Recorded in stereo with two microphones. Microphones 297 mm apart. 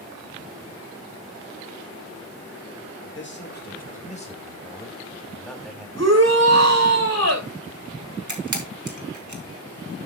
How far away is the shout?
About 2.5 m.